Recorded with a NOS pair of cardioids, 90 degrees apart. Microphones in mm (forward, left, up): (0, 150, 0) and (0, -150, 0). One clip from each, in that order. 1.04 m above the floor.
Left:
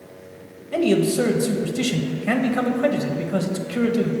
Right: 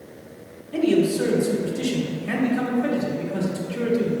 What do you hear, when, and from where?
0.7 s a man speaking: 65° left, 0.7 m